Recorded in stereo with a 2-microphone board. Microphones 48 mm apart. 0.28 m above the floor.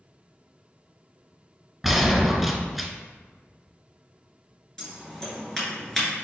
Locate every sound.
1.8 s a gunshot: centre (ahead or behind), 0.7 m
4.8 s scissors: 10° left (ahead or behind), 1.8 m